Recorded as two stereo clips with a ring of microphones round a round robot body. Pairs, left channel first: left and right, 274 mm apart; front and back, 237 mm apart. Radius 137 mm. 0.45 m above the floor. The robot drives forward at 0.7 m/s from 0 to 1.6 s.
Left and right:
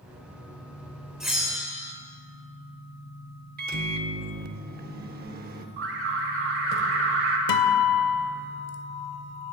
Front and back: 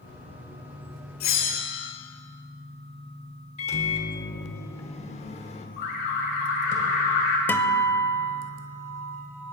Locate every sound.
1.2 s a bell: straight ahead, 2 m
3.6 s a microwave: 50° right, 0.8 m
5.8 s an alarm: 50° right, 1.8 m
7.5 s a guitar: 80° left, 0.8 m